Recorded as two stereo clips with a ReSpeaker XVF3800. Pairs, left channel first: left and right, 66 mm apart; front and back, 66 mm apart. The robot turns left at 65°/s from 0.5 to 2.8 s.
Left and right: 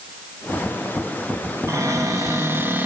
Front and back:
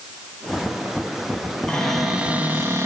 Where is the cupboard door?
70° right, 2 m; by 2.9 s 145° right, 2 m.